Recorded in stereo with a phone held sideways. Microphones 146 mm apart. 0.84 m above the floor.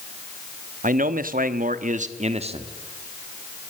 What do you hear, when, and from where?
0.8 s a man speaking: 65° right (ahead or behind), 1.2 m; by 2.7 s 40° right (ahead or behind), 1.6 m